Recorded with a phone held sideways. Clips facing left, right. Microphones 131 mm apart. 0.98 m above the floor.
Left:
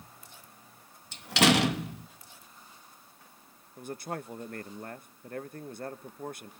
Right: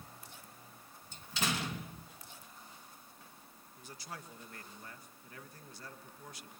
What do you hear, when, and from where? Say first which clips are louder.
1.1 s a door slam: left 14 dB; 65° left (ahead or behind), 0.8 m
3.8 s a man speaking: left 12 dB; 50° left (ahead or behind), 1.1 m